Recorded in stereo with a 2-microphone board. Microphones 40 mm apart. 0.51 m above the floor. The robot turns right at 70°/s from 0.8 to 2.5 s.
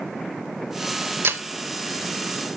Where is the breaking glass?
70° right (ahead or behind), 0.9 m; by 1.4 s 75° right (ahead or behind), 0.9 m.